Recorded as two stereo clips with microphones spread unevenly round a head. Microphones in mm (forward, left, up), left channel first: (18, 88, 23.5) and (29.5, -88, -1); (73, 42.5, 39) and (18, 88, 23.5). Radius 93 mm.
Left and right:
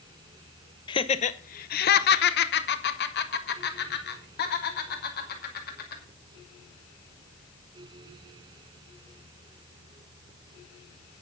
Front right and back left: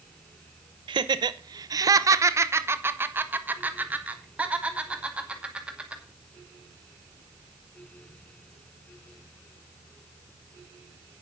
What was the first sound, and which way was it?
Laughter, 150° left.